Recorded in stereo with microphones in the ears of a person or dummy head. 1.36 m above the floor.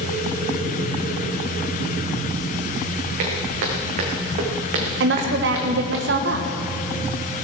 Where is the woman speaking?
65° right (ahead or behind), 1.2 m.